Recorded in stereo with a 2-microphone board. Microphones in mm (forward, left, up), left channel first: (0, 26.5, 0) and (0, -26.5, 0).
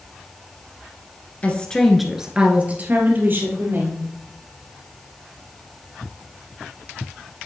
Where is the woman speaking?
30° left (ahead or behind), 1.3 m; by 4.1 s 55° right (ahead or behind), 3 m.